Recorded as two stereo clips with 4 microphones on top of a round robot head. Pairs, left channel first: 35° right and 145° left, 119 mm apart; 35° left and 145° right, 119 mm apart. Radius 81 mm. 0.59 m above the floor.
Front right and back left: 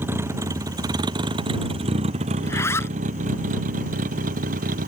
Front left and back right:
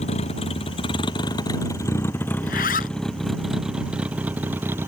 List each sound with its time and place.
0.0 s a vehicle: 75° left; by 4.9 s 145° left
2.4 s a zipper: 35° left